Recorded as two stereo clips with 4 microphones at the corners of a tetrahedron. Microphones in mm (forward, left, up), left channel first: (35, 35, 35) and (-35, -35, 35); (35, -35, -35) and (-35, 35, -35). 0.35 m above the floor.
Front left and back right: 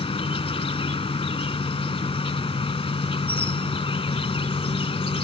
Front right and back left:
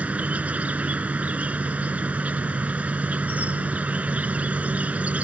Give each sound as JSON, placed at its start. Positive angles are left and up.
{"t": 0.0, "sound": "an insect", "azimuth_deg": 60}